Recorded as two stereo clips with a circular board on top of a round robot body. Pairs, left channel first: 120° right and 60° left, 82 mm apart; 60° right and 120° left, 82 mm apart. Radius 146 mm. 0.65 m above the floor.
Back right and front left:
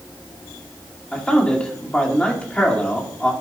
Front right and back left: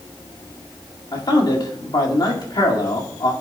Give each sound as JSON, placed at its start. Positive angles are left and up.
{"t": 1.1, "sound": "a man speaking", "azimuth_deg": -45, "distance_m": 2.0}